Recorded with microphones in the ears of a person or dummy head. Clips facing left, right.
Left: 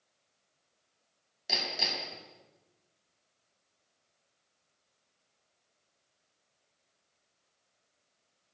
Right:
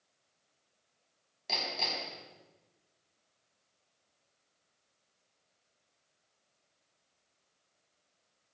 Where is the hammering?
15° left (ahead or behind), 5 m.